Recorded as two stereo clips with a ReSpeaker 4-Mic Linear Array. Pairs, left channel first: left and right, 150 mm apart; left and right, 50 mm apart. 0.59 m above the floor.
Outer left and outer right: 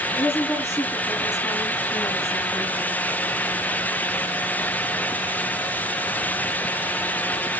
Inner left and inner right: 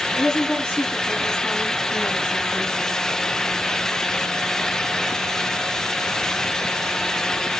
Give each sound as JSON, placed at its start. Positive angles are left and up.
{"t": 0.1, "sound": "a woman speaking", "side_deg": 15, "distance_m": 5.5}